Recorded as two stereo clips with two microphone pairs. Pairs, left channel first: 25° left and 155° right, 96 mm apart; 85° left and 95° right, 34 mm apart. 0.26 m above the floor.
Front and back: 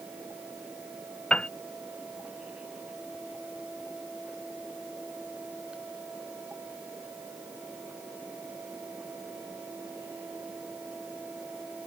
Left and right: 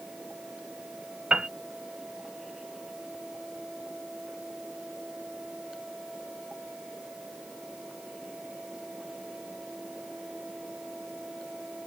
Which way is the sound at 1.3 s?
45° right.